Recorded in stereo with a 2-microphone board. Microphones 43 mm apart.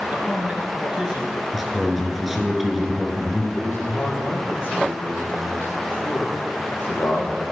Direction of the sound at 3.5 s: 60° left (ahead or behind).